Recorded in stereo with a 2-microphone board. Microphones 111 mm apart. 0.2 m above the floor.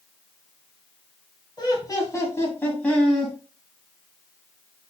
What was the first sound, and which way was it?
Laughter, 40° left (ahead or behind).